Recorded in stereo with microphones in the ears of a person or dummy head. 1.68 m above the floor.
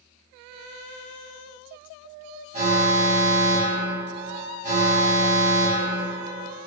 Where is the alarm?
40° right (ahead or behind), 5 m.